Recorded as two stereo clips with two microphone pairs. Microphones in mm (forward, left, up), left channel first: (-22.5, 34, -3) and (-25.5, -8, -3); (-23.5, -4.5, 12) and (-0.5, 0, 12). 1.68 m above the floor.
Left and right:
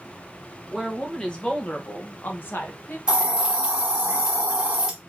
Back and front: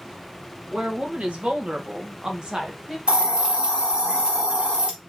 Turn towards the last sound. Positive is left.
turn(degrees=-20)